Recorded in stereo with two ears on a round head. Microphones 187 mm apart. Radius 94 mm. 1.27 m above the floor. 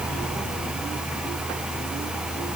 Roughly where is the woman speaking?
I don't hear a woman speaking.